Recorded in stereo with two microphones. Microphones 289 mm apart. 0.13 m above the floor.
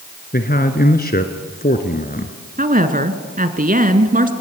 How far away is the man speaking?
About 1.3 m.